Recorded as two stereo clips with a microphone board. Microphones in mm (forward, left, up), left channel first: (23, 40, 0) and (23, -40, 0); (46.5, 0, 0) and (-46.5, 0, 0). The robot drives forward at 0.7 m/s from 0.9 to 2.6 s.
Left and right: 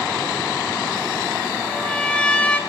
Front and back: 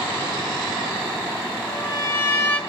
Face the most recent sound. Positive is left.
turn(degrees=50)